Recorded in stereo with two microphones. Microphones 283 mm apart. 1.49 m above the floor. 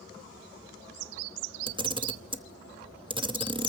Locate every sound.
1.7 s a camera shutter: 15° right (ahead or behind), 0.9 m